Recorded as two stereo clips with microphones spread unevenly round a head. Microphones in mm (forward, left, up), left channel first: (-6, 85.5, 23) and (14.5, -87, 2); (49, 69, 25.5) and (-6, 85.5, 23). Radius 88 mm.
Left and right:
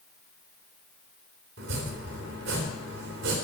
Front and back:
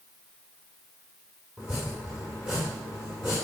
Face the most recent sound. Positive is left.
turn(degrees=-110)